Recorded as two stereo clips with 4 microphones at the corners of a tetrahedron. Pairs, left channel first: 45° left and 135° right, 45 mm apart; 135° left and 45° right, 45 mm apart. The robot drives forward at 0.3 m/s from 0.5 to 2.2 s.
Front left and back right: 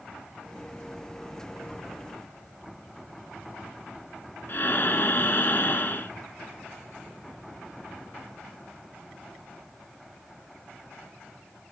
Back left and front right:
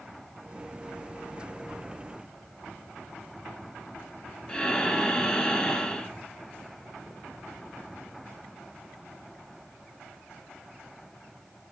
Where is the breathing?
70° left, 0.5 m.